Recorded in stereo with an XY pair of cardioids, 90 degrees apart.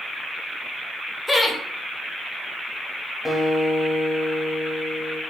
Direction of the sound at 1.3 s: 10° left.